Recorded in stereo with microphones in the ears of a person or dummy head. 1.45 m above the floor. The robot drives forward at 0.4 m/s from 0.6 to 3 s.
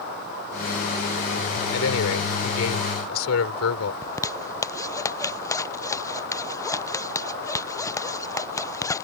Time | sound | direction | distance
1.7 | a man speaking | 80° left | ?
4.0 | a zipper | 15° left (ahead or behind) | ?